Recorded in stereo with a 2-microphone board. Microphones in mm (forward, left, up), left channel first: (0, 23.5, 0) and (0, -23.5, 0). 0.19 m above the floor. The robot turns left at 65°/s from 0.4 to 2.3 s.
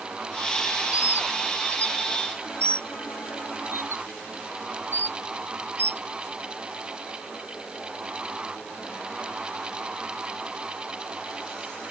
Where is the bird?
25° right (ahead or behind); by 6.0 s 65° right (ahead or behind).